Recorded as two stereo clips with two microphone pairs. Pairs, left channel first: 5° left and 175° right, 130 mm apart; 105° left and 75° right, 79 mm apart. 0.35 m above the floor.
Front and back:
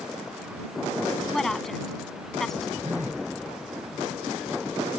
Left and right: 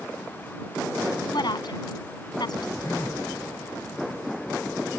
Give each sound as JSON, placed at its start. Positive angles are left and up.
{"t": 1.3, "sound": "a woman speaking", "azimuth_deg": 95}
{"t": 2.8, "sound": "a phone buzzing", "azimuth_deg": 165}